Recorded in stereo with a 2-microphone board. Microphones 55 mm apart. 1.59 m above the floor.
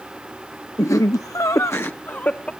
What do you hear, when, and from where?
0.8 s laughter: 55° left (ahead or behind); by 2.5 s 25° left (ahead or behind)